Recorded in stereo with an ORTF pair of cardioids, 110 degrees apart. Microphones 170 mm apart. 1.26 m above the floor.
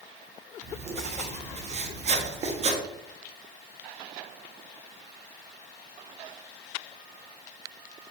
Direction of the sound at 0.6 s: 40° right.